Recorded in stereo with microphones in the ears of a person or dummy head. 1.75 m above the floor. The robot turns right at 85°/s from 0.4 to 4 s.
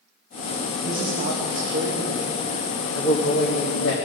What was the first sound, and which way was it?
A man speaking, 170° right.